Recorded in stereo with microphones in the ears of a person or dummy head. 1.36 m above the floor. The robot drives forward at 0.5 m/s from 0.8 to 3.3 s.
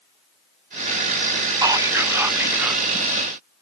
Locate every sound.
1.6 s whispering: 20° right (ahead or behind), 0.5 m; by 2.8 s 10° right (ahead or behind), 1.1 m